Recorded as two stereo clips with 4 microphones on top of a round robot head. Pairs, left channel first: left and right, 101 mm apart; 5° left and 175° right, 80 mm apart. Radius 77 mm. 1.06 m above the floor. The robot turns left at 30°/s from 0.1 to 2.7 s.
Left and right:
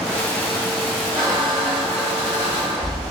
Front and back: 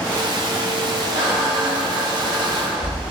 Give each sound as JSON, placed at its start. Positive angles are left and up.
{"t": 1.1, "sound": "a squeak", "azimuth_deg": -155, "distance_m": 0.6}